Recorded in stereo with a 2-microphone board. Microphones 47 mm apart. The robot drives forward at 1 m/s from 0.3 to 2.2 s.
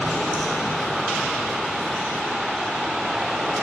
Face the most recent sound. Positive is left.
turn(degrees=-10)  # may be behind; listen again after turning